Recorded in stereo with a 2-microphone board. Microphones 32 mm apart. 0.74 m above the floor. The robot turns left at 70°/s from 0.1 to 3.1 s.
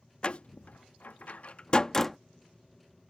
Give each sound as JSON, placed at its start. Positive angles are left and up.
{"t": 0.2, "sound": "a door slam", "side_deg": 30}